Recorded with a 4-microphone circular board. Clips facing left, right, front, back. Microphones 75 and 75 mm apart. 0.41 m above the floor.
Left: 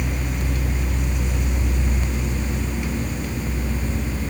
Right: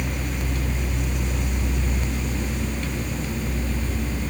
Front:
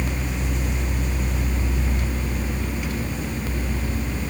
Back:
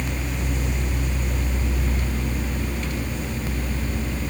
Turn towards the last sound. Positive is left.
No sound to turn to.